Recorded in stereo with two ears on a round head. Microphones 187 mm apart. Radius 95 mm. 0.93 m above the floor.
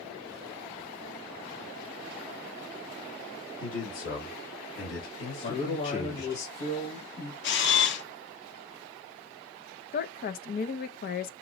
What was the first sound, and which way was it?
A man speaking, 65° left (ahead or behind).